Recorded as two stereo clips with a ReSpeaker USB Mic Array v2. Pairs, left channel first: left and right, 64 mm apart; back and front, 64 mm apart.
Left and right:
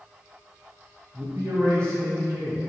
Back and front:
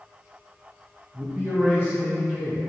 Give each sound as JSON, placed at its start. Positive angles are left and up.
{"t": 1.1, "sound": "a man speaking", "azimuth_deg": -65, "distance_m": 1.8}